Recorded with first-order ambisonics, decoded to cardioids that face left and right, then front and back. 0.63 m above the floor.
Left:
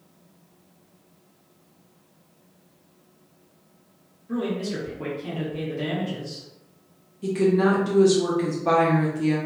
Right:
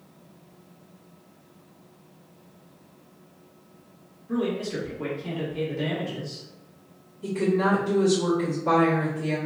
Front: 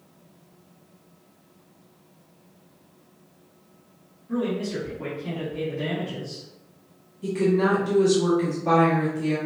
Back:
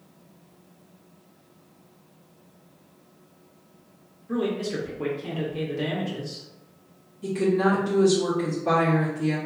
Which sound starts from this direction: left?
A woman speaking, at 7.2 s.